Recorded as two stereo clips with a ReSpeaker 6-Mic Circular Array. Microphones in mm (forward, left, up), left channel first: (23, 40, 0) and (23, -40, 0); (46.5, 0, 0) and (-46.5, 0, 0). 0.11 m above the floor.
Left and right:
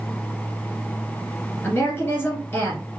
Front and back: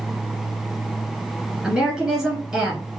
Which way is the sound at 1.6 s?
100° left.